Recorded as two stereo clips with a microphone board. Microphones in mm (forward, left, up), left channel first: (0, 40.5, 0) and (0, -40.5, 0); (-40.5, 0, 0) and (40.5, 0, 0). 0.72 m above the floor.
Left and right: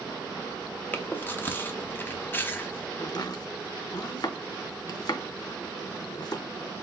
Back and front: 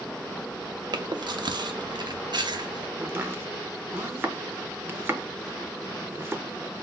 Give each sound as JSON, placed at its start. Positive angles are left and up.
{"t": 0.9, "sound": "chewing", "azimuth_deg": 25, "distance_m": 0.6}
{"t": 3.0, "sound": "chopping", "azimuth_deg": 60, "distance_m": 0.6}